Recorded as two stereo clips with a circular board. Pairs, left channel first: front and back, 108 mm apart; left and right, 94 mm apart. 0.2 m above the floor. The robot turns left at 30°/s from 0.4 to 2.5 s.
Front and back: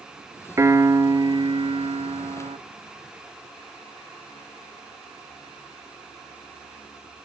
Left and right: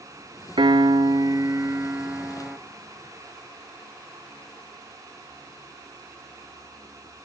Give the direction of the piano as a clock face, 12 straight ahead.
4 o'clock.